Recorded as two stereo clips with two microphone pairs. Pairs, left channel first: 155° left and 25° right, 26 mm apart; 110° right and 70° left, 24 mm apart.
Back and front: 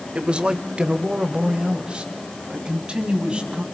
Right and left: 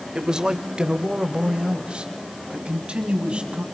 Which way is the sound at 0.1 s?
15° left.